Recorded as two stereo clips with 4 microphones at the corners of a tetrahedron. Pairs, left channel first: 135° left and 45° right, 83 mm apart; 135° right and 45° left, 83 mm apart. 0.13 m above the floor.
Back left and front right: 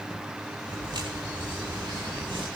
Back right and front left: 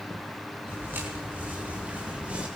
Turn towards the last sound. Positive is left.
turn(degrees=-30)